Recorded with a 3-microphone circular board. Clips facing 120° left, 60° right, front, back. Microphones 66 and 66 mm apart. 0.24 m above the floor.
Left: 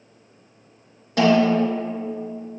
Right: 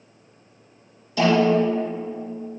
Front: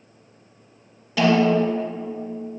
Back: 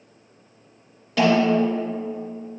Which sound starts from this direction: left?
A snare drum, at 1.2 s.